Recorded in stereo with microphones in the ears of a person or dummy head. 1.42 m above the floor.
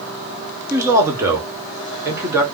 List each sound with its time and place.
0.7 s a man speaking: 15° right (ahead or behind), 1.2 m